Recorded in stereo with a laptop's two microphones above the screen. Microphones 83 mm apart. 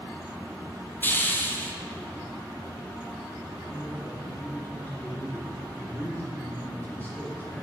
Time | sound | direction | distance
1.0 | a hiss | 25° left (ahead or behind) | 0.6 m
3.7 | a man speaking | 20° left (ahead or behind) | 1.0 m